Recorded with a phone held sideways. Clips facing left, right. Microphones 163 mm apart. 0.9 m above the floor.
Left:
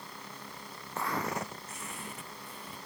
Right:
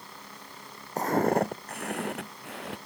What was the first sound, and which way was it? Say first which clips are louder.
Footsteps: right 10 dB; 40° right (ahead or behind).